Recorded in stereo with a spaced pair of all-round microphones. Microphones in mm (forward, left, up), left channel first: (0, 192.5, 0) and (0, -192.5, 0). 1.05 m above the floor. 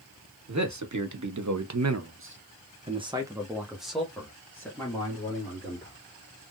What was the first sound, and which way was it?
A man speaking, 45° right (ahead or behind).